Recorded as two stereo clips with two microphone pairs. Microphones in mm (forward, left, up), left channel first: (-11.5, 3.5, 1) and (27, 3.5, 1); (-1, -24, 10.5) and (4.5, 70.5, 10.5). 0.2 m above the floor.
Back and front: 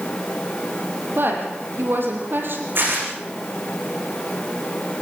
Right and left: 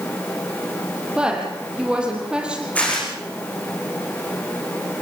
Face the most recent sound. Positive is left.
turn(degrees=-20)